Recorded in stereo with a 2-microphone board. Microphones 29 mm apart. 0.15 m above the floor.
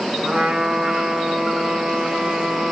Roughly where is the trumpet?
Right.